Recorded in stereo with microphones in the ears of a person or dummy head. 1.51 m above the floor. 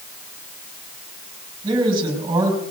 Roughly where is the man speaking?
Centre.